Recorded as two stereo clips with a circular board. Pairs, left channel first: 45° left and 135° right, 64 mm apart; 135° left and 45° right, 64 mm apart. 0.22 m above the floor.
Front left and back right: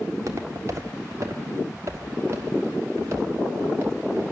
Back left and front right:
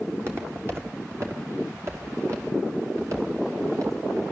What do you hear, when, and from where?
0.1 s footsteps: 95° right, 4 m; by 4.2 s 80° right, 6 m